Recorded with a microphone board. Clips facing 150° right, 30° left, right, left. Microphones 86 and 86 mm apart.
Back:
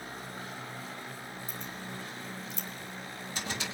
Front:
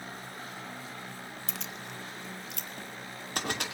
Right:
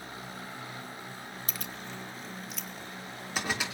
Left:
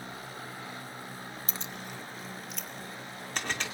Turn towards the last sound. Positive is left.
turn(degrees=-5)